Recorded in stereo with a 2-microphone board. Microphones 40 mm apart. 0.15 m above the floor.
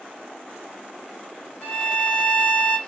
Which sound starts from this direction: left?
A violin, at 1.6 s.